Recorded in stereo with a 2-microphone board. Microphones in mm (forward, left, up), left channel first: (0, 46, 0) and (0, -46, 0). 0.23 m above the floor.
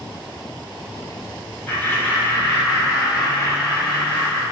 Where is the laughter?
20° left (ahead or behind), 1.0 m; by 4.4 s 35° left (ahead or behind), 2.5 m.